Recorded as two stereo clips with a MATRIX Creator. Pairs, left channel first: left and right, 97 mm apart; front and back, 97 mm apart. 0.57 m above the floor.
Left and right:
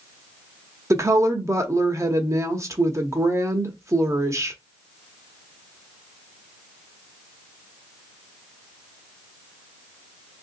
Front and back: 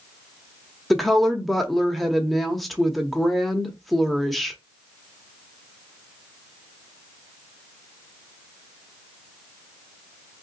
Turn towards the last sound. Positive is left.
turn(degrees=-90)